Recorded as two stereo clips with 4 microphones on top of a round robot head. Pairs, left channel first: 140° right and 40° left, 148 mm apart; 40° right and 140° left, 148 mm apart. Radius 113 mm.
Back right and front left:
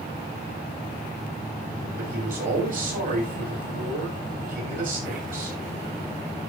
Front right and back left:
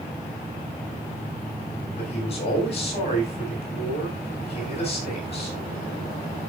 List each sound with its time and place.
2.0 s a man speaking: 10° left, 6.5 m